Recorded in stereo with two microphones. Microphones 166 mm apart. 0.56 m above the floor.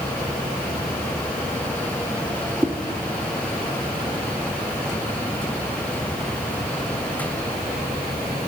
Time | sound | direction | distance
2.6 | a whoosh | 15° right (ahead or behind) | 1.6 m